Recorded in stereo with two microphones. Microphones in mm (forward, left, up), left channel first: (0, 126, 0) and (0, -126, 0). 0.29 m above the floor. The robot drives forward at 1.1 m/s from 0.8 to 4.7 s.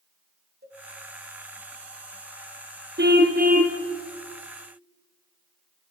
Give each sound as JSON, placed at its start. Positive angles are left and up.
{"t": 0.6, "sound": "a cowbell", "side_deg": -40, "distance_m": 3.5}
{"t": 3.0, "sound": "a car horn", "side_deg": -40, "distance_m": 2.0}